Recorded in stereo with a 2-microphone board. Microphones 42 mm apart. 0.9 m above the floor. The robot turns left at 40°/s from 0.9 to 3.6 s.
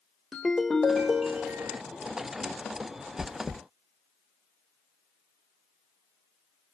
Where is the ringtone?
10° left, 1.3 m; by 1.8 s 25° right, 1.3 m.